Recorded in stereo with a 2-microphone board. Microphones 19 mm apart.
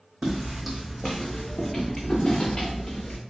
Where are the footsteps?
35° right (ahead or behind), 0.6 m; by 3.2 s 55° left (ahead or behind), 1.6 m.